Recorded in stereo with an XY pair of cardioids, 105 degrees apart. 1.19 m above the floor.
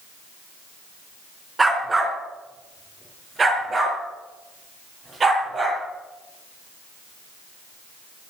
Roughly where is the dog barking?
Ahead.